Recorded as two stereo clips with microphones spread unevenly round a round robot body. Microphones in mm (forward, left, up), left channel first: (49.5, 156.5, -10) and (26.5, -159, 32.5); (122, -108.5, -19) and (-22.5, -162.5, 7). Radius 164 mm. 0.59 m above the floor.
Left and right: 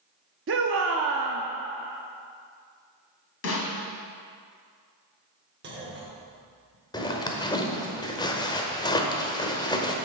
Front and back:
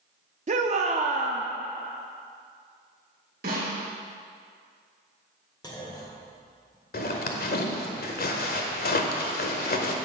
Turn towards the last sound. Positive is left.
turn(degrees=10)